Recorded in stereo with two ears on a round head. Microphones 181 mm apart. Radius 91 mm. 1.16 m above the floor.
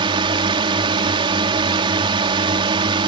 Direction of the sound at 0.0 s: 25° right (ahead or behind).